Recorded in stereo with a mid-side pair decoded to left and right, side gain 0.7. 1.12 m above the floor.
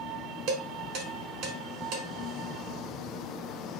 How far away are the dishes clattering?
About 1.4 m.